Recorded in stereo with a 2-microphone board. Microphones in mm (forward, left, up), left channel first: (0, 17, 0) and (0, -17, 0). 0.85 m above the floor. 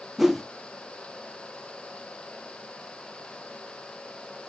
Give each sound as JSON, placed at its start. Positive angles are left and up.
{"t": 0.2, "sound": "a whoosh", "side_deg": -10, "distance_m": 0.7}